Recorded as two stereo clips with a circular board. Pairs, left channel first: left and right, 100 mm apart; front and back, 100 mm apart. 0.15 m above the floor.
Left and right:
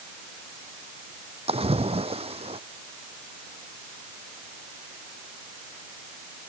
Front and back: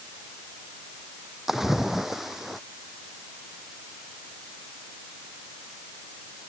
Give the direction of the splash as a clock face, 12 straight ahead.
3 o'clock.